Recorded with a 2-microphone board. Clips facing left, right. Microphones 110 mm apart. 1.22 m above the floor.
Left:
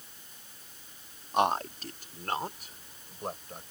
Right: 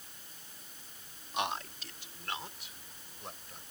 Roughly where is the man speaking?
Left.